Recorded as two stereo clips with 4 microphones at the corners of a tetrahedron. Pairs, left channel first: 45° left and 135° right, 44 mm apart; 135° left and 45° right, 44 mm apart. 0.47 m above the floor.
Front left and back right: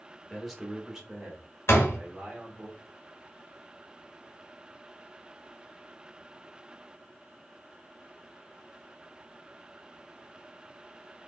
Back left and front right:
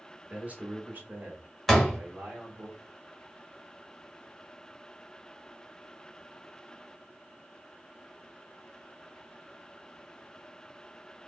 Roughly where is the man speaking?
Ahead right.